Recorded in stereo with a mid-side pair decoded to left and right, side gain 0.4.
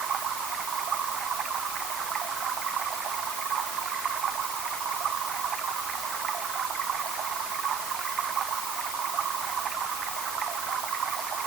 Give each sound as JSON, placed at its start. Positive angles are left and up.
{"t": 0.0, "sound": "running water", "azimuth_deg": -65}